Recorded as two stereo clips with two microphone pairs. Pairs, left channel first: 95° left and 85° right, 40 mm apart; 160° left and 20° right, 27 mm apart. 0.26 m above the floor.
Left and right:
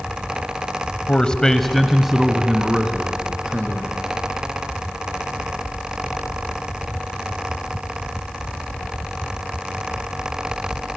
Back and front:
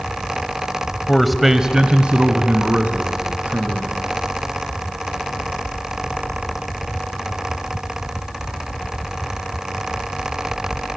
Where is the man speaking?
100° left, 1.1 m; by 4.0 s 20° right, 3.5 m.